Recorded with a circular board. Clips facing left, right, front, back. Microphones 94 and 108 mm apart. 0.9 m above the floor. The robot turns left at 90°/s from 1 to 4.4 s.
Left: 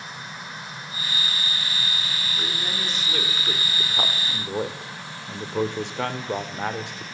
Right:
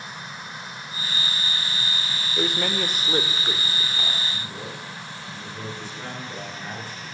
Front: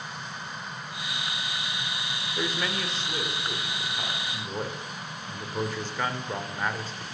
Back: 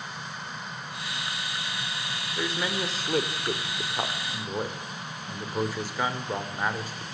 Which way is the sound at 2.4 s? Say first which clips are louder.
Right 9 dB, back 1 dB; 75° right.